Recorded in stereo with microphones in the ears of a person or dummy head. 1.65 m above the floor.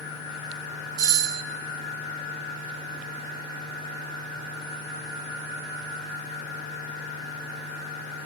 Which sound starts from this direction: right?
A doorbell, at 1.0 s.